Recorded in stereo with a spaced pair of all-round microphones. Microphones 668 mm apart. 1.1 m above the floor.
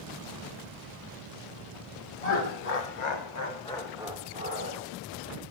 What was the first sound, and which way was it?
Laughter, 65° left (ahead or behind).